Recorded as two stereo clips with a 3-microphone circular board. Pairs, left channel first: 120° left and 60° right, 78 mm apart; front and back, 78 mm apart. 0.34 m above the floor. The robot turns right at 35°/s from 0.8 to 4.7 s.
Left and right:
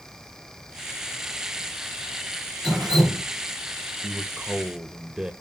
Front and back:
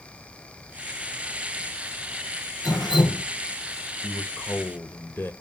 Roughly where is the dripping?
Ahead right.